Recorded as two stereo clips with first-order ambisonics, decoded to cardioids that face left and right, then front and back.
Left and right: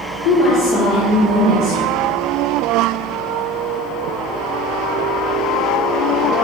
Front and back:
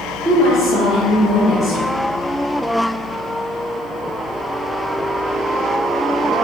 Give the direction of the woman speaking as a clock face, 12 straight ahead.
9 o'clock.